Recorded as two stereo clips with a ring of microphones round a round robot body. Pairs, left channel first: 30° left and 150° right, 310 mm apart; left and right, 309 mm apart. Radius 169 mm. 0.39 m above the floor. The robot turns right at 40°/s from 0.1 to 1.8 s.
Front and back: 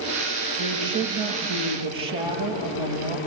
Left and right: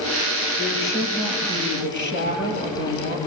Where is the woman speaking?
155° left, 8.5 m; by 3.2 s 155° right, 8.5 m.